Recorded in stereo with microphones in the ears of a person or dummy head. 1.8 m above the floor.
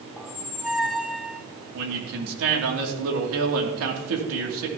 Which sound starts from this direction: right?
A man speaking, at 1.7 s.